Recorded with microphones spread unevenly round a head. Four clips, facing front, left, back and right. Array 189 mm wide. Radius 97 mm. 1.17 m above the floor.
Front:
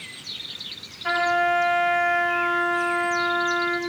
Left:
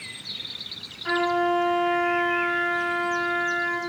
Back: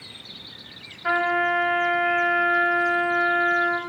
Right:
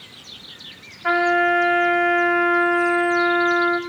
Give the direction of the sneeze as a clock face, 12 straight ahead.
No sneeze in this recording.